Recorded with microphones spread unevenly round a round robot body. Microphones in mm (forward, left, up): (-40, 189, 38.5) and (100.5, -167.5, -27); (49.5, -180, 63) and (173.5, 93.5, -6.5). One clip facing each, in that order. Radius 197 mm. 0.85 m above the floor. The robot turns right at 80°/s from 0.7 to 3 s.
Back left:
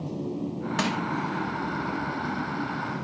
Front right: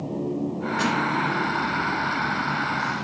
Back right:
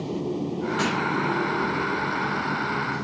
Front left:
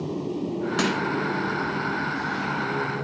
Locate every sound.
0.8 s crushing: 85° left, 1.9 m; by 1.0 s 100° left, 1.9 m